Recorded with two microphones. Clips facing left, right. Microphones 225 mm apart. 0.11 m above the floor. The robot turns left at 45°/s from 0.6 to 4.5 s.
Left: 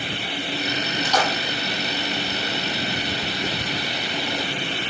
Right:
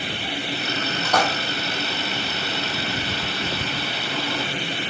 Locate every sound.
1.0 s a splash: 60° right (ahead or behind), 3.5 m; by 1.3 s 55° right (ahead or behind), 3.5 m